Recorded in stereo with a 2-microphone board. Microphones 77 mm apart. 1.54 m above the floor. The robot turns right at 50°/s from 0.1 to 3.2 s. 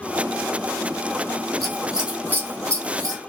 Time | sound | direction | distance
1.6 | scissors | 5° left (ahead or behind) | 0.7 m